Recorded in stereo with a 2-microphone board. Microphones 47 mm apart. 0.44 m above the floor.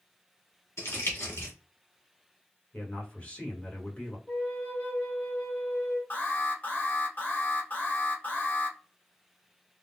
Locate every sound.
0.8 s crumpling: 70° left (ahead or behind), 1.6 m
2.7 s a man speaking: 35° left (ahead or behind), 1.4 m
4.3 s a flute: 40° left (ahead or behind), 1.8 m
6.1 s an alarm: 40° left (ahead or behind), 1.2 m